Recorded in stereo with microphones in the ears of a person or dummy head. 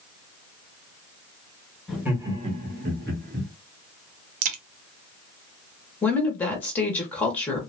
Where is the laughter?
Centre (ahead or behind), 1.3 m; by 3.5 s 45° right (ahead or behind), 1.5 m.